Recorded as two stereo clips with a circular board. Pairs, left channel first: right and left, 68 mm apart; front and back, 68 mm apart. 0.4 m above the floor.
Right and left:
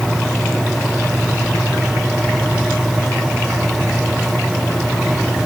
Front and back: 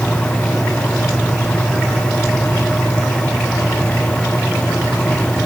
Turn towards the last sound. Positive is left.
No sound to turn to.